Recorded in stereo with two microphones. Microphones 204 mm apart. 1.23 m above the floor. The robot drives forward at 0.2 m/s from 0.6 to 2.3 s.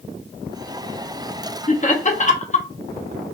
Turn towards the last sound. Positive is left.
turn(degrees=35)  # may be behind; listen again after turning